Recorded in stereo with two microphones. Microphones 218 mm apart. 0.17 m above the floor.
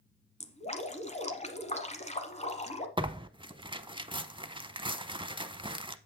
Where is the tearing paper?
25° right (ahead or behind), 0.6 m.